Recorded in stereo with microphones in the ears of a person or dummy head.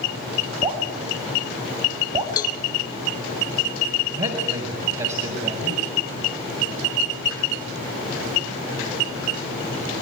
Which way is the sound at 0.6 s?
30° right (ahead or behind).